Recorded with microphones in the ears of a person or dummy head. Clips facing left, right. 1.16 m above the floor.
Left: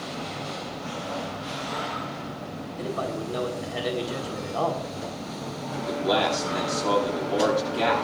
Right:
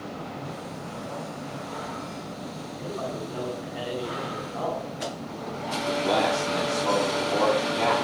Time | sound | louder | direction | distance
2.8 | a man speaking | left 3 dB | 80° left | 4 m
5.7 | a man speaking | even | 10° left (ahead or behind) | 9 m